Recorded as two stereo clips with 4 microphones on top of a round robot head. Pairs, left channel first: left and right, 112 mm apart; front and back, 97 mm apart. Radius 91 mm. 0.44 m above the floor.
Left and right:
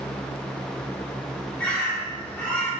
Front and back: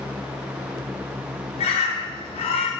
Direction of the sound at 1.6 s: 15° left.